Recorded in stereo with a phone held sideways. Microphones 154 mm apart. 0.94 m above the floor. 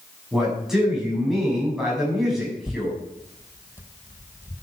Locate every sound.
0.3 s a man speaking: centre (ahead or behind), 7.5 m
2.6 s tearing paper: 15° right (ahead or behind), 1.0 m